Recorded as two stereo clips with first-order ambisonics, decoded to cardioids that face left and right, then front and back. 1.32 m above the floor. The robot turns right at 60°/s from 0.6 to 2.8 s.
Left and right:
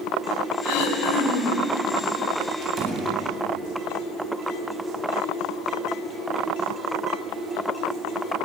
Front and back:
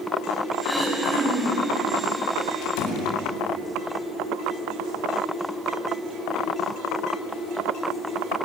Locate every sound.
0.6 s throat clearing: 80° left, 5 m; by 1.6 s 140° left, 5 m
2.6 s a door slam: 35° right, 8 m; by 3.1 s 25° right, 8 m